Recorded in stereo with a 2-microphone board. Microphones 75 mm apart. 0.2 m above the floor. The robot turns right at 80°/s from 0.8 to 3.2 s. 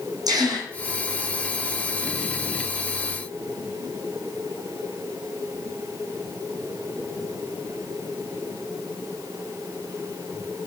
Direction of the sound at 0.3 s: 60° right (ahead or behind).